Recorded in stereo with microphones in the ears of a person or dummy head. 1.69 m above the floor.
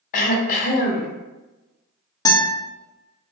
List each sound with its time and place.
0.1 s throat clearing: 50° left (ahead or behind), 0.5 m
2.2 s a guitar: 20° left (ahead or behind), 0.5 m